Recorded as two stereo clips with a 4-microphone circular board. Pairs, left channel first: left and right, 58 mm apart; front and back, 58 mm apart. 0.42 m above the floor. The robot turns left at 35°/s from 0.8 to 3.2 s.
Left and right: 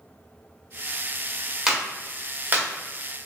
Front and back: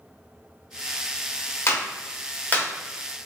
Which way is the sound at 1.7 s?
15° right.